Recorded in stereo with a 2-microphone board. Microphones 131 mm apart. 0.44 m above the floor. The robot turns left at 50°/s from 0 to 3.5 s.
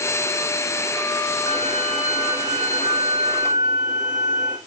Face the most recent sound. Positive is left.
turn(degrees=-70)